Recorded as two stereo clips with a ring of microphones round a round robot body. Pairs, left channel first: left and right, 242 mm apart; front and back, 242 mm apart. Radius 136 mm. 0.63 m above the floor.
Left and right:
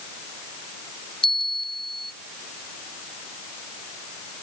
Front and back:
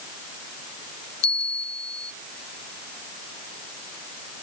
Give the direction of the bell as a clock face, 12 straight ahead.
11 o'clock.